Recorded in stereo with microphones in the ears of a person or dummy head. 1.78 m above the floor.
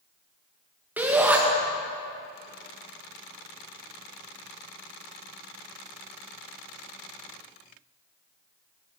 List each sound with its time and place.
1.0 s a shout: 5° right (ahead or behind), 1.3 m